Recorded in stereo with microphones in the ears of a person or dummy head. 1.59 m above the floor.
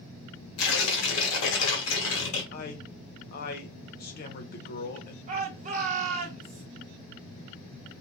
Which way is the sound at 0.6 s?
75° left (ahead or behind).